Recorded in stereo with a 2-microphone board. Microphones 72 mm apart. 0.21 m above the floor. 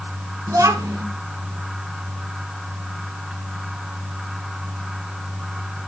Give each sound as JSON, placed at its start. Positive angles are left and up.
{"t": 0.5, "sound": "a child speaking", "side_deg": -55, "distance_m": 1.9}